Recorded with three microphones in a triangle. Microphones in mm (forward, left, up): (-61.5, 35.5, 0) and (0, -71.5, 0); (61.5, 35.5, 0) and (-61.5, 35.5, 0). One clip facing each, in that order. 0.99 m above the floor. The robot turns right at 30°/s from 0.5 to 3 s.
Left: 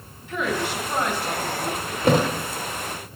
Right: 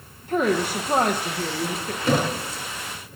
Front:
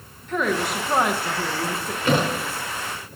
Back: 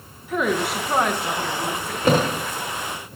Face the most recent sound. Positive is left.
turn(degrees=165)